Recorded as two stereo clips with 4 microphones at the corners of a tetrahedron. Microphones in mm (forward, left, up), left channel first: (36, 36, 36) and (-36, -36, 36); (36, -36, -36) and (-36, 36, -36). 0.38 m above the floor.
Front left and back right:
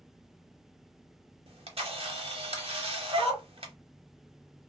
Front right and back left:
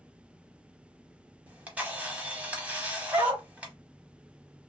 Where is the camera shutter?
150° right, 0.8 m.